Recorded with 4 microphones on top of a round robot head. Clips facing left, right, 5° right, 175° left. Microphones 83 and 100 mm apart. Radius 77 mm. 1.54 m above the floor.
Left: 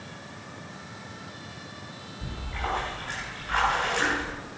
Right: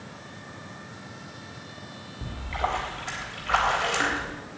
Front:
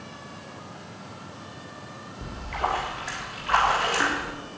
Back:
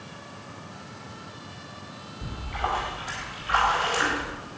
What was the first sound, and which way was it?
A splash, 55° right.